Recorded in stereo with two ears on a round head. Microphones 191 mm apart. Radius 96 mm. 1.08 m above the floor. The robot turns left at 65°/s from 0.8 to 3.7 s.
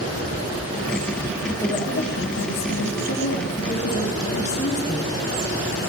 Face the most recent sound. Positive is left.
turn(degrees=30)